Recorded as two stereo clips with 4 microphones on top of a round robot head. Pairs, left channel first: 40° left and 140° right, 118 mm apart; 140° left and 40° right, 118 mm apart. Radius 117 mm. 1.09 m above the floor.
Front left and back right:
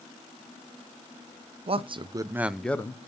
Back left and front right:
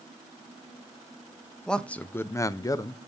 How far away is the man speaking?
About 0.8 m.